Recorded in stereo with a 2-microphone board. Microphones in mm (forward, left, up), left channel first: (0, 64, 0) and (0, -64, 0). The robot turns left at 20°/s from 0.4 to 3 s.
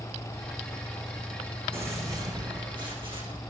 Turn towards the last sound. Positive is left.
turn(degrees=-45)  # may be behind; listen again after turning